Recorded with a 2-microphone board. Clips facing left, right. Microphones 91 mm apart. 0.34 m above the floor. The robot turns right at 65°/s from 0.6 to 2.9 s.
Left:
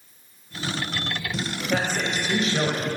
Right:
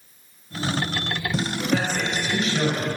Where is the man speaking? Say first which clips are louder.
Even; 80° left, 1.5 m; by 2.9 s 155° left, 1.5 m.